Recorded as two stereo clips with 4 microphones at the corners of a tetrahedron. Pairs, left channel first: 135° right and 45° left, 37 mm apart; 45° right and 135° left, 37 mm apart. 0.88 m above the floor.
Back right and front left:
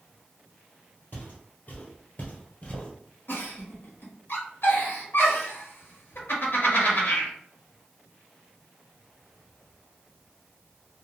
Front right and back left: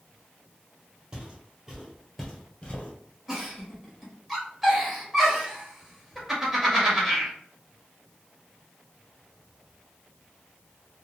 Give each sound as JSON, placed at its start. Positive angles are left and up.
{"t": 1.1, "sound": "footsteps", "azimuth_deg": -165, "distance_m": 1.6}
{"t": 3.3, "sound": "a giggle", "azimuth_deg": -145, "distance_m": 1.1}